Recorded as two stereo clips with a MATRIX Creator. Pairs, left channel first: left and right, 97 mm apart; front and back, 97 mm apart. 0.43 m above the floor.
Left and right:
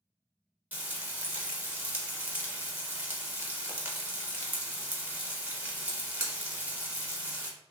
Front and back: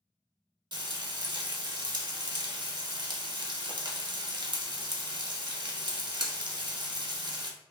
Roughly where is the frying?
Behind.